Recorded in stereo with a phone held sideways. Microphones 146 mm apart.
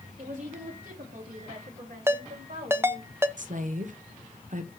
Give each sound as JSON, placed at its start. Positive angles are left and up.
{"t": 0.2, "sound": "a woman speaking", "side_deg": -60, "distance_m": 3.0}
{"t": 2.1, "sound": "a ringtone", "side_deg": -15, "distance_m": 0.5}
{"t": 3.4, "sound": "a woman speaking", "side_deg": -60, "distance_m": 0.9}